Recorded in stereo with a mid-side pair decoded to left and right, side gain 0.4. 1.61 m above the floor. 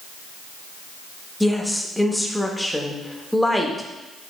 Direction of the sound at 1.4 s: 5° left.